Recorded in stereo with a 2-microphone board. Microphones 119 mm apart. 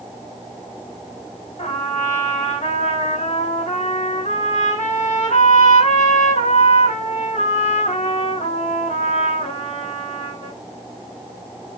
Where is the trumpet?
65° left (ahead or behind), 4 m.